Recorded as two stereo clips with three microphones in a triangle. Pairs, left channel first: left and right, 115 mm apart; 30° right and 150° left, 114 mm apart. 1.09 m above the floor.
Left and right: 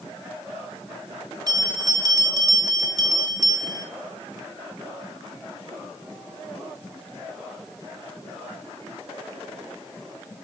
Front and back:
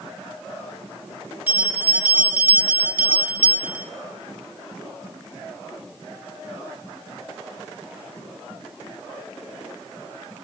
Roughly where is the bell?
Behind right.